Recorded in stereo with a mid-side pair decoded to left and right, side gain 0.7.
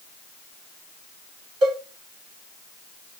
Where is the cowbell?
60° right, 2 m.